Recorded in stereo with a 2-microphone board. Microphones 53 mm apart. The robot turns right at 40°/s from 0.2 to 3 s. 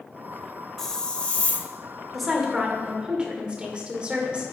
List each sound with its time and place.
0.8 s a hiss: 10° left, 0.6 m; by 1.7 s 45° left, 0.6 m
2.1 s a woman speaking: straight behind, 1.5 m; by 4.5 s 145° right, 1.5 m